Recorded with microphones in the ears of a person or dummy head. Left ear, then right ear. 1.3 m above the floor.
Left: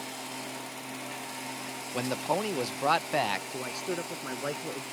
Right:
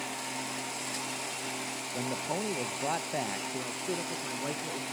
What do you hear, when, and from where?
1.9 s a man speaking: 50° left (ahead or behind)
3.5 s a man speaking: 70° left (ahead or behind)